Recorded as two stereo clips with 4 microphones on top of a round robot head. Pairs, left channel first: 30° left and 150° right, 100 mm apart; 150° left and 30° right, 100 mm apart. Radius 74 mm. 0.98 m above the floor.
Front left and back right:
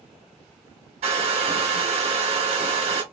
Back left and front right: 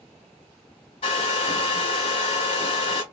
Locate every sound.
1.0 s a hair dryer: 175° right, 1.0 m